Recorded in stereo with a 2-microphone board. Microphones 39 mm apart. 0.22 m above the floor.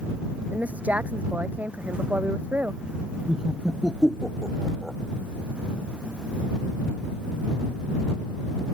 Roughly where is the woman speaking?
Right.